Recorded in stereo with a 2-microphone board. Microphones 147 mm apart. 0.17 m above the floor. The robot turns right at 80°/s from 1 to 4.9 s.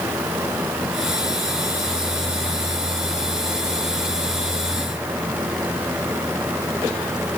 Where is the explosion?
I don't hear an explosion.